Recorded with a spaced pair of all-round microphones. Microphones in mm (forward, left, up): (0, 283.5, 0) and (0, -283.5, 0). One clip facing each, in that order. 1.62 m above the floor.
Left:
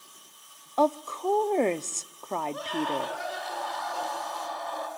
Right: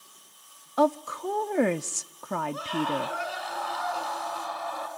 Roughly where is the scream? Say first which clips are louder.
Right 1 dB; right.